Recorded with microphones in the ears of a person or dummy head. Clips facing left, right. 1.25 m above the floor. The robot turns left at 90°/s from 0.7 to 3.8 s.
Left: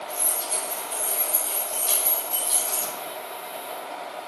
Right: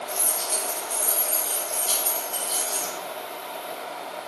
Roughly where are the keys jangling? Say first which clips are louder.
Right 1 dB; right.